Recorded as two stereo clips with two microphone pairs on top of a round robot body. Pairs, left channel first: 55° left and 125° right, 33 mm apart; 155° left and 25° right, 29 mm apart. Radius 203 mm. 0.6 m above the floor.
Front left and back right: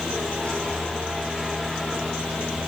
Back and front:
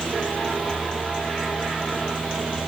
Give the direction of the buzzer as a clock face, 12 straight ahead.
No buzzer in this recording.